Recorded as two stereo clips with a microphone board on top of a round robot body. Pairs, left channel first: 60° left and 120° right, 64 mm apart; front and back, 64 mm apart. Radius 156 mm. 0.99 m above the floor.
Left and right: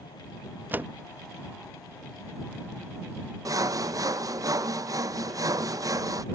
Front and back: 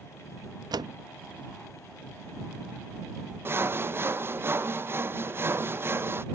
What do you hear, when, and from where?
0.7 s a door slam: 175° left
3.5 s sawing: 135° right